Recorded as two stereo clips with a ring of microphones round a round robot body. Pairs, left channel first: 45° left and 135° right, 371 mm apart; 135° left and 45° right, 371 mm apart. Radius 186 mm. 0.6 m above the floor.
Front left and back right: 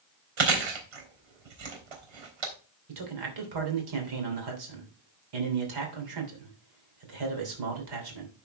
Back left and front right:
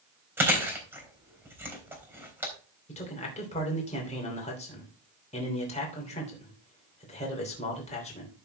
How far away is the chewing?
About 3.5 m.